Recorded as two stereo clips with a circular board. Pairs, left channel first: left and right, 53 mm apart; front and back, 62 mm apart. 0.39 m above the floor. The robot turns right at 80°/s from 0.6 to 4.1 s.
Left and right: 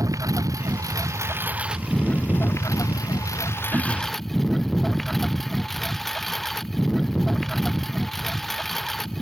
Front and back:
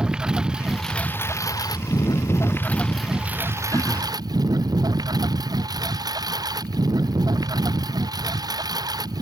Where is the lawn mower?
105° right; by 9.2 s 175° left.